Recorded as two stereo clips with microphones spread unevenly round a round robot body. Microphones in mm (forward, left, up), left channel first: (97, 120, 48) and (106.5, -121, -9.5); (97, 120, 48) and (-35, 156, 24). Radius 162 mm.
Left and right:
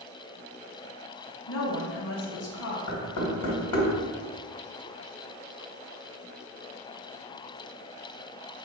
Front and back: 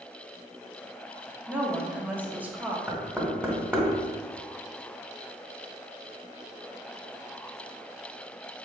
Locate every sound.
1.5 s a woman speaking: 100° left, 1.0 m
2.9 s knocking: 85° left, 1.5 m